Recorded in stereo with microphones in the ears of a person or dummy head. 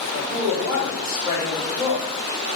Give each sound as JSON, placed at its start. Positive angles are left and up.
{"t": 0.1, "sound": "a man speaking", "side_deg": -20, "distance_m": 1.7}